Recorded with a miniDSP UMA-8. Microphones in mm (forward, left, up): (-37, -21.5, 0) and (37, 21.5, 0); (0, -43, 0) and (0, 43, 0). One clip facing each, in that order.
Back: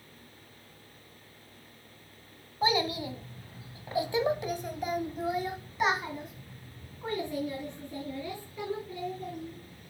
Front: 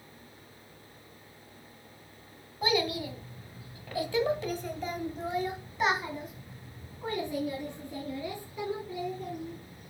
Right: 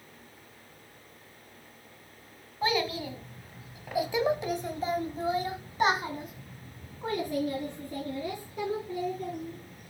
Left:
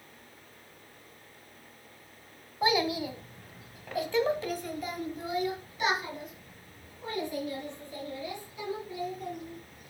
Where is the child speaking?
160° left, 1.5 m; by 9.9 s 45° right, 3.5 m.